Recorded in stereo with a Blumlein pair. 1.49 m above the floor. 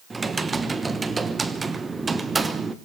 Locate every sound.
0.1 s typing on a keyboard: 10° right, 1.0 m